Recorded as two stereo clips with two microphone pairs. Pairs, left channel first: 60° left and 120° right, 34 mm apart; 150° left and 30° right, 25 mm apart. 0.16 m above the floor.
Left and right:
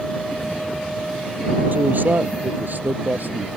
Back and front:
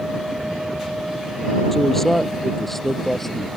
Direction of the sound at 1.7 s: 130° right.